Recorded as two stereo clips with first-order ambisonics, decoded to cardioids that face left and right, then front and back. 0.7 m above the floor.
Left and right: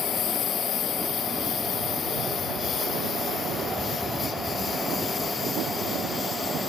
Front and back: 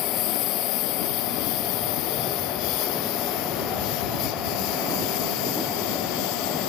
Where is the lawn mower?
35° left; by 6.7 s 15° left.